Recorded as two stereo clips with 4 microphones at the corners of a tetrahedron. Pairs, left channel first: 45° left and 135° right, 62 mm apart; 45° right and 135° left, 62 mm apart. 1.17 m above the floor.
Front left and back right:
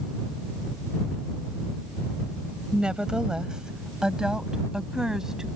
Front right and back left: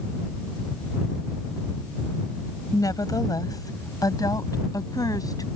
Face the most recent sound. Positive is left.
turn(degrees=-55)